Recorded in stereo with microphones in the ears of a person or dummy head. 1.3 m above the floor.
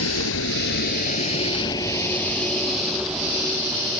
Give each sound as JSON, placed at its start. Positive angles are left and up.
{"t": 0.0, "sound": "a vehicle", "side_deg": 80}